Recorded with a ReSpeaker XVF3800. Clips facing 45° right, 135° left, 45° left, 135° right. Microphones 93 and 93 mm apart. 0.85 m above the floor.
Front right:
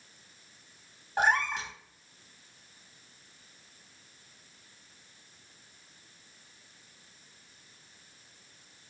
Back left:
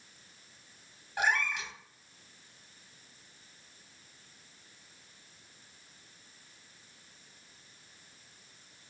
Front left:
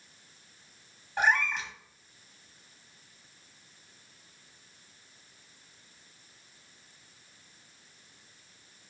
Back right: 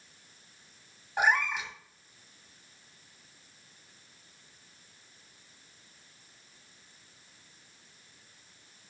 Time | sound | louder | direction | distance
1.2 | a cat meowing | front right 4 dB, even | 60° right | 0.8 m